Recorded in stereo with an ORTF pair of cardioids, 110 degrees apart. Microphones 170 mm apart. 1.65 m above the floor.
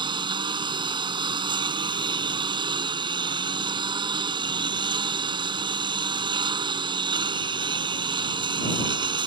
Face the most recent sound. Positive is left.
turn(degrees=-30)